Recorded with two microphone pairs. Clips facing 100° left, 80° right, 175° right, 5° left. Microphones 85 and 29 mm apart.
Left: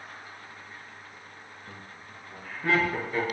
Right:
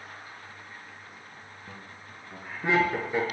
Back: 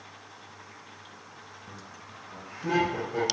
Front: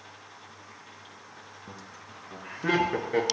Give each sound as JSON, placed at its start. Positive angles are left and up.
{"t": 1.7, "sound": "laughter", "azimuth_deg": -10, "distance_m": 1.9}